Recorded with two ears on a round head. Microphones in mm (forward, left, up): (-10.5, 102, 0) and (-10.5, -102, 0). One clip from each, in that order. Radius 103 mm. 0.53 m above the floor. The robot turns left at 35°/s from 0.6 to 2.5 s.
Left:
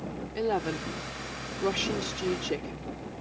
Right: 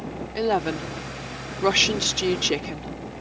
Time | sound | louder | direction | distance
0.3 | a woman speaking | right 6 dB | 30° right | ?